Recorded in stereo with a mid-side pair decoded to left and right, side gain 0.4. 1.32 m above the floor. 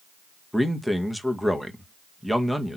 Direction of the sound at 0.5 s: Straight ahead.